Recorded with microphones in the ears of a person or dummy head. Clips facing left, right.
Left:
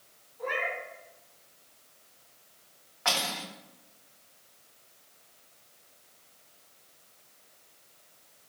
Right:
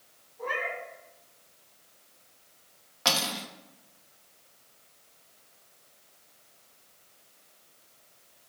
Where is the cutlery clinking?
55° right (ahead or behind), 1.0 m.